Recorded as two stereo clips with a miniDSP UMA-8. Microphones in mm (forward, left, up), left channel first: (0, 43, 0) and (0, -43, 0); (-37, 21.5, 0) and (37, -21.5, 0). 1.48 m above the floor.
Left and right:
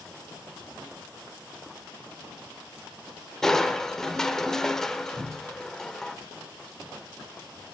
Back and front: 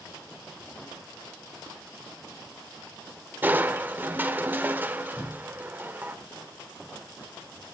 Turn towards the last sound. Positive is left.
turn(degrees=-150)